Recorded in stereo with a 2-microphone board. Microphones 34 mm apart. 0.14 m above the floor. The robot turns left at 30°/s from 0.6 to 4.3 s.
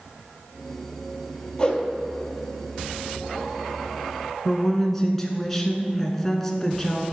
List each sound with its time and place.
1.6 s a whoosh: 25° left (ahead or behind), 1.3 m; by 1.8 s 30° left (ahead or behind), 1.3 m
4.5 s a woman speaking: 15° left (ahead or behind), 1.2 m